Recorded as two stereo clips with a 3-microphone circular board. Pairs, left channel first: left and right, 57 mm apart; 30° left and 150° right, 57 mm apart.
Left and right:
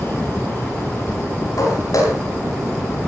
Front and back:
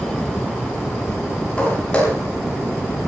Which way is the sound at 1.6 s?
100° left.